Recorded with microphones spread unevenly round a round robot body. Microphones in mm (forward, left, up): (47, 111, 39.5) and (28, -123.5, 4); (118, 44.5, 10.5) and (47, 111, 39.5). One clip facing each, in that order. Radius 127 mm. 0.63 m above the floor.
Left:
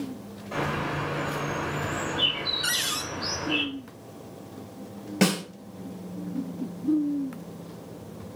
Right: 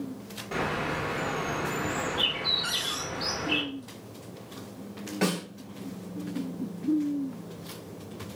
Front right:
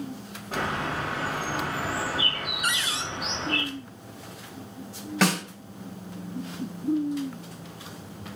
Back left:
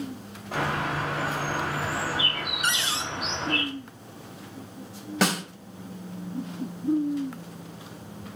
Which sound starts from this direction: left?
A cupboard door, at 2.6 s.